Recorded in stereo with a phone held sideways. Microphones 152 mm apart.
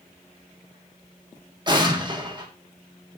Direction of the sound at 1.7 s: 30° right (ahead or behind).